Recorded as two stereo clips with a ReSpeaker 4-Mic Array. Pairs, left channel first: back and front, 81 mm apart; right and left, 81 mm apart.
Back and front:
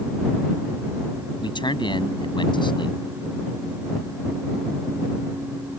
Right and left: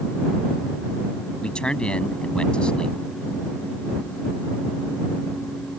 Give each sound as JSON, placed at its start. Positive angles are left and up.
{"t": 1.4, "sound": "a man speaking", "azimuth_deg": -170}